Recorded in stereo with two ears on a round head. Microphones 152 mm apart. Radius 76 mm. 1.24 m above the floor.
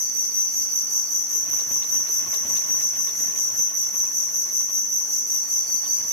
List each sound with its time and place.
0.0 s an insect: centre (ahead or behind), 1.5 m